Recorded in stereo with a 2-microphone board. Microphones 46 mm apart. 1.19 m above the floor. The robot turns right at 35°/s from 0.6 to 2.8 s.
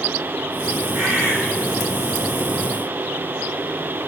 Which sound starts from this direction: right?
A bird, at 0.9 s.